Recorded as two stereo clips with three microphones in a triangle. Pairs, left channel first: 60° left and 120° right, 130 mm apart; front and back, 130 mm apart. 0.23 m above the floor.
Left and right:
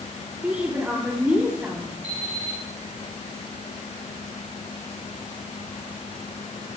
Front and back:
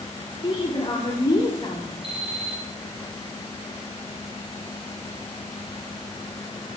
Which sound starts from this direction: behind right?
An alarm clock, at 2.0 s.